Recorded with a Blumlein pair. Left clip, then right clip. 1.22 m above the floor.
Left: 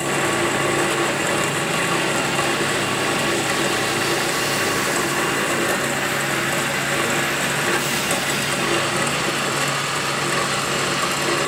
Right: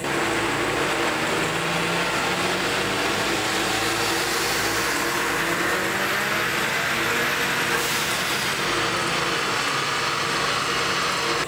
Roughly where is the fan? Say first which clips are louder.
Left 3 dB; ahead left.